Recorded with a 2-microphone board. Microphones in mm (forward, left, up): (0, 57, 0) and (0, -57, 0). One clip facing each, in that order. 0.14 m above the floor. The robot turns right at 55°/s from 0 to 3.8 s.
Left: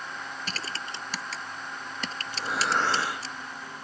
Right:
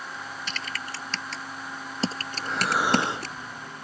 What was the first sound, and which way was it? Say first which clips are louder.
Typing on a keyboard: right 1 dB; 40° left (ahead or behind).